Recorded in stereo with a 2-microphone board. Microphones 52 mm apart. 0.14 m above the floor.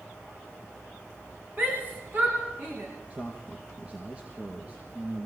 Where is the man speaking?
20° right (ahead or behind), 3.5 m.